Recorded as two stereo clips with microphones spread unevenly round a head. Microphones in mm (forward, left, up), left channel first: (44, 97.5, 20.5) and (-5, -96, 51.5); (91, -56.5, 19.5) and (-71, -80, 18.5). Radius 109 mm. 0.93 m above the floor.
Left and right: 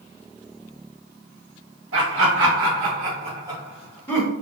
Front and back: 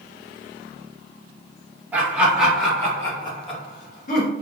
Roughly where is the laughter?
Right.